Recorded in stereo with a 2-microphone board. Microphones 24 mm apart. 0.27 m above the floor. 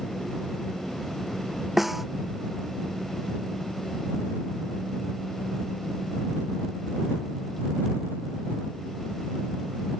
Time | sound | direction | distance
1.8 | a snare drum | 5° right (ahead or behind) | ?